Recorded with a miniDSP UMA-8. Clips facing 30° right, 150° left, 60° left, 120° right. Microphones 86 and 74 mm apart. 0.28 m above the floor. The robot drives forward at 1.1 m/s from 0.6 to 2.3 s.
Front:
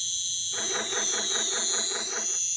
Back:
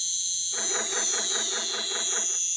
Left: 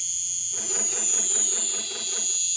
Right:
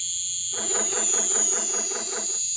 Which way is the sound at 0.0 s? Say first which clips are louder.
Front 2 dB, right 4 dB; 20° right.